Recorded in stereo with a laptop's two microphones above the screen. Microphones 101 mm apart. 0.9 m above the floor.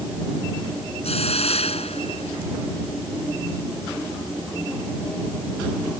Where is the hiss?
80° left.